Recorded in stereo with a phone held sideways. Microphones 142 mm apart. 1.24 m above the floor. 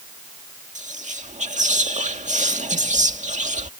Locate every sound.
0.8 s whispering: 60° right (ahead or behind)